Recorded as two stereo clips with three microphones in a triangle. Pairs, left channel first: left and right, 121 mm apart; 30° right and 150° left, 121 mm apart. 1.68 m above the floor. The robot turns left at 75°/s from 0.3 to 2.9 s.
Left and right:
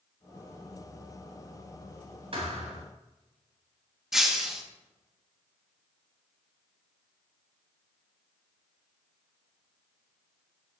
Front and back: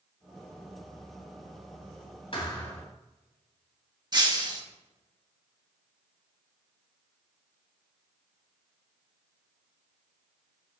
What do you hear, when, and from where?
2.3 s a thud: 60° right, 3 m; by 2.8 s 100° right, 3 m
4.1 s breaking glass: 175° right, 1.3 m